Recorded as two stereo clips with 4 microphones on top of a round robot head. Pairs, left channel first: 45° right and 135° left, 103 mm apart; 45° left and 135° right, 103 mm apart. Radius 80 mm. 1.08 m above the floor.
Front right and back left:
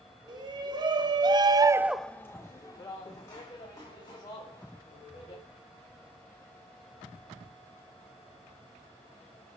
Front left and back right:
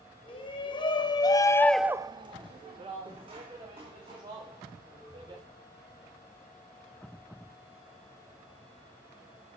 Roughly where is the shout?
Left.